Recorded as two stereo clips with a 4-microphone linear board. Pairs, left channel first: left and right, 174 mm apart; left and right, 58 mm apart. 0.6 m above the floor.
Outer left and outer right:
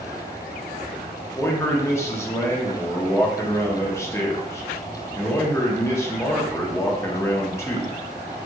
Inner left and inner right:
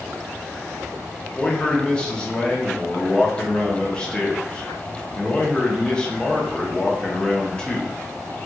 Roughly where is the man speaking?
Centre.